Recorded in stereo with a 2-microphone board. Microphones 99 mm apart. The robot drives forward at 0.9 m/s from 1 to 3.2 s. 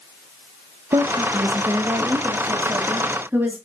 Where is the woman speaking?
55° right (ahead or behind), 1.2 m; by 3.6 s 20° right (ahead or behind), 2.5 m.